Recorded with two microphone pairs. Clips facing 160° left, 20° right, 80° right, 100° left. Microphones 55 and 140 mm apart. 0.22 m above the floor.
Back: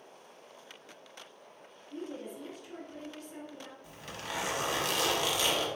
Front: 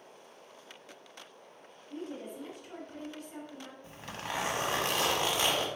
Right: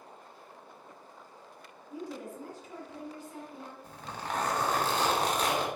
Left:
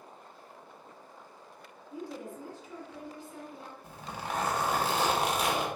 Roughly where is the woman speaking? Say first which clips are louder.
Even, even; ahead right.